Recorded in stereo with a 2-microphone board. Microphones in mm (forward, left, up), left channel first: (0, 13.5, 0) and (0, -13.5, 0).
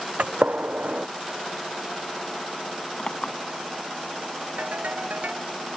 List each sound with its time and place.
0.2 s a gunshot: 80° right
3.0 s a clink: 45° left (ahead or behind)
4.6 s a ringtone: 75° right (ahead or behind)